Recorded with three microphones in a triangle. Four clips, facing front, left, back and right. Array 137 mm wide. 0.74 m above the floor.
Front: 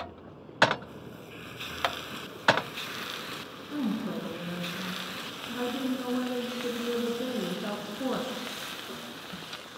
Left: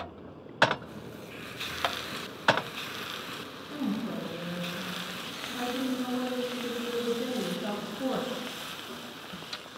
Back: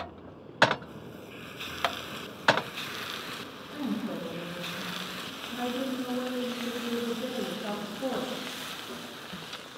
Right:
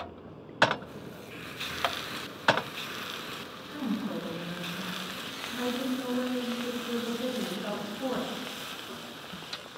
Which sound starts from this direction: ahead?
A woman speaking, at 3.7 s.